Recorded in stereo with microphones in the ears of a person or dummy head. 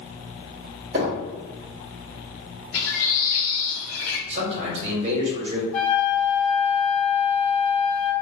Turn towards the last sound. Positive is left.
turn(degrees=5)  # may be behind; listen again after turning